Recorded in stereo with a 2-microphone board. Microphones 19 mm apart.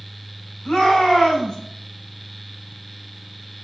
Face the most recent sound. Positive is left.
turn(degrees=75)  # may be behind; listen again after turning